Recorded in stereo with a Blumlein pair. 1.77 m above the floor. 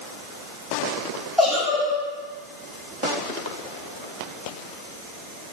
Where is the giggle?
5° left, 1.2 m.